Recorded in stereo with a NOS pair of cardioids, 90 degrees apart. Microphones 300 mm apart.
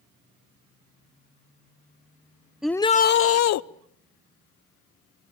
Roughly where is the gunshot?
No gunshot in this recording.